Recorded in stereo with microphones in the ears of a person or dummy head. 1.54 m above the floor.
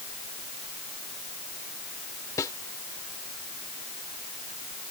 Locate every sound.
2.4 s a snare drum: 15° left (ahead or behind)